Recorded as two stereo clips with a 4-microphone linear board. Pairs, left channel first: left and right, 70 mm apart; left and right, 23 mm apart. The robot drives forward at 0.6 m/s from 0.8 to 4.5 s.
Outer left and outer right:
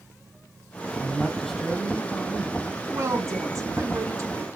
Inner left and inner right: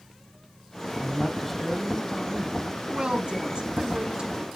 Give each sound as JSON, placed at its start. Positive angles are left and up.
{"t": 1.0, "sound": "a man speaking", "side_deg": 5, "distance_m": 1.4}
{"t": 2.9, "sound": "a woman speaking", "side_deg": -45, "distance_m": 1.7}